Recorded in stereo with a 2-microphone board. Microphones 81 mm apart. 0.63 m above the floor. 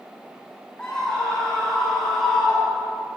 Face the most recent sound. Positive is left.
turn(degrees=-5)  # may be behind; listen again after turning